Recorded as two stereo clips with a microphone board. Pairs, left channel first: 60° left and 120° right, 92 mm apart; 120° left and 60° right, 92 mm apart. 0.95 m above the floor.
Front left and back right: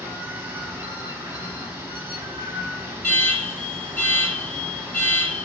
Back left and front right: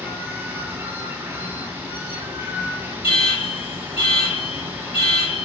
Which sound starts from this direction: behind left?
An alarm, at 3.0 s.